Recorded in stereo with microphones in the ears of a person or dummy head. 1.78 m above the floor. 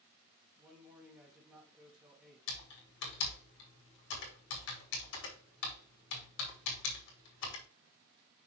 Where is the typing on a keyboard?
65° left (ahead or behind), 2.5 m.